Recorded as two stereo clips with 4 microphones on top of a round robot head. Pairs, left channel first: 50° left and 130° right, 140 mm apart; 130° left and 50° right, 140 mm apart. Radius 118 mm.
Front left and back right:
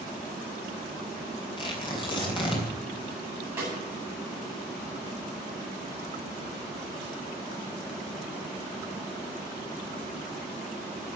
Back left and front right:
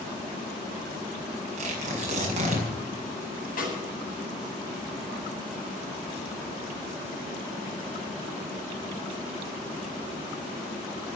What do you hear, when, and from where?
1.6 s tearing paper: 10° right, 5 m
3.6 s a snare drum: 155° left, 9 m